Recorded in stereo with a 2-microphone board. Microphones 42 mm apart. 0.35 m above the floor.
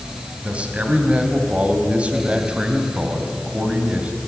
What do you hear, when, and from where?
0.4 s a man speaking: 30° right (ahead or behind), 2.5 m